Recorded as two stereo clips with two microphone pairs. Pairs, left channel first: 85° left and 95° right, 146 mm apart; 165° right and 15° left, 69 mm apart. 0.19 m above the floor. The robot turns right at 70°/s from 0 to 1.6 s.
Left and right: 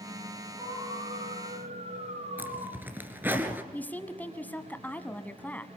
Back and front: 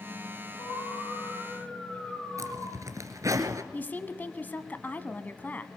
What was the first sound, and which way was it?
An alarm, 165° right.